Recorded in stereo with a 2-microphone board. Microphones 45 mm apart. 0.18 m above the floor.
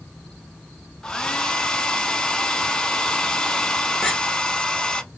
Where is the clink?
10° left (ahead or behind), 1.2 m.